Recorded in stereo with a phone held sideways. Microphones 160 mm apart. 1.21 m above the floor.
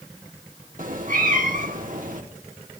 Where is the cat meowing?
55° right (ahead or behind), 1.3 m.